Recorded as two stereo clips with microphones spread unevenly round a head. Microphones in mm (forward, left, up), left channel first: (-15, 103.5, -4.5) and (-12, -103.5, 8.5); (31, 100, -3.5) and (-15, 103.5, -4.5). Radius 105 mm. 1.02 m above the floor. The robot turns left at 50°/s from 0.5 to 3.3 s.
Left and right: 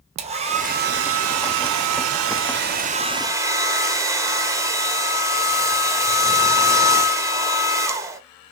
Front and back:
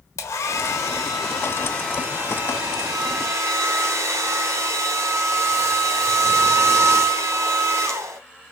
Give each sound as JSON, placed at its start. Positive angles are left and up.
{"t": 0.2, "sound": "a hair dryer", "azimuth_deg": -25, "distance_m": 0.7}